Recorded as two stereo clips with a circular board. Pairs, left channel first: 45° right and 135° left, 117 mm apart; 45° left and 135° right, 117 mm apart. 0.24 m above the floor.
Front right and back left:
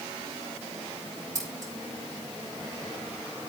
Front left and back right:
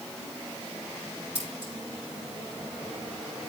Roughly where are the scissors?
Behind.